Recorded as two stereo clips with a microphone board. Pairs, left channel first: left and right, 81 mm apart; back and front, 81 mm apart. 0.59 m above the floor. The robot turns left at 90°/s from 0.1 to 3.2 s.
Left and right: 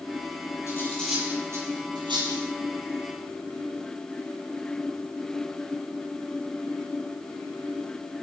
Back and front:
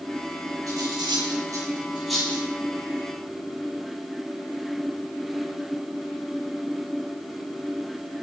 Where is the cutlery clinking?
40° left, 8.5 m; by 2.4 s 120° right, 8.5 m.